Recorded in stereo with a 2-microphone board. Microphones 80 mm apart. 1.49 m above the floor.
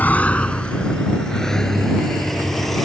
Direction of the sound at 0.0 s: 20° left (ahead or behind).